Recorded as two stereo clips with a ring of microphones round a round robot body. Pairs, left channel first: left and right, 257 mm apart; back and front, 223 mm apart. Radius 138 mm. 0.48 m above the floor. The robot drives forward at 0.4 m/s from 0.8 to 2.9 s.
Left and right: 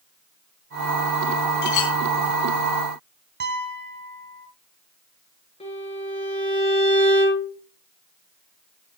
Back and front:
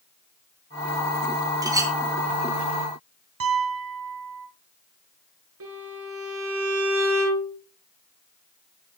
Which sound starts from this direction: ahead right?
A piano, at 3.4 s.